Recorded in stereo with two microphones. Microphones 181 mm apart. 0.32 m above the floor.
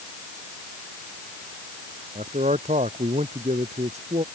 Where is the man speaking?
40° right (ahead or behind).